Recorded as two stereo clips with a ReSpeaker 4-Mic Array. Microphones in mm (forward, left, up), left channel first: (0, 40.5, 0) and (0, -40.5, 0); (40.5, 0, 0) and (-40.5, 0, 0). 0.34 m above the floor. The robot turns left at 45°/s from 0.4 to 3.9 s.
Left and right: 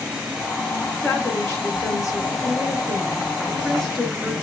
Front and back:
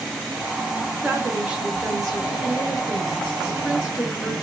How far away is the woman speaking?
About 1.3 m.